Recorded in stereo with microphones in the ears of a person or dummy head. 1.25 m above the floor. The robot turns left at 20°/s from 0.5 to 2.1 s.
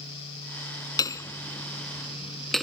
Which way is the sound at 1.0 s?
20° left (ahead or behind).